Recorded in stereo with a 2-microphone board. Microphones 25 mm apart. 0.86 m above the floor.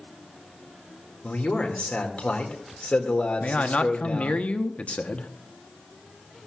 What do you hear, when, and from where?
1.2 s a man speaking: 60° left (ahead or behind), 2 m
3.4 s a man speaking: 65° left (ahead or behind), 1.0 m